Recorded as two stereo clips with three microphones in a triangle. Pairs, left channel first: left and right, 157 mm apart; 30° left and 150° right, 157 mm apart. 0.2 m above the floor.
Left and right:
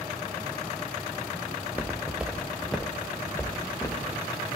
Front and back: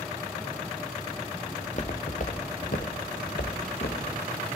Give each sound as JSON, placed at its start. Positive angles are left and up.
{"t": 1.6, "sound": "footsteps", "azimuth_deg": -15, "distance_m": 1.6}